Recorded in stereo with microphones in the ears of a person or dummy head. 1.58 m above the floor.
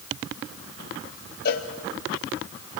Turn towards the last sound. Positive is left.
turn(degrees=50)  # may be behind; listen again after turning